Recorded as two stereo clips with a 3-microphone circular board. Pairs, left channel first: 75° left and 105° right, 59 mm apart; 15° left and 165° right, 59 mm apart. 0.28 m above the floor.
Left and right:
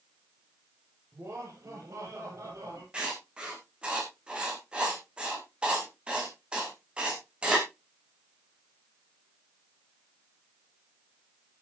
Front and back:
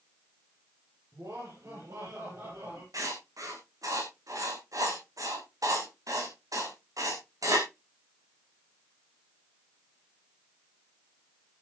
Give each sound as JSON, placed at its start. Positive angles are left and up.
{"t": 1.1, "sound": "laughter", "azimuth_deg": -145, "distance_m": 8.5}
{"t": 2.9, "sound": "writing", "azimuth_deg": -175, "distance_m": 4.0}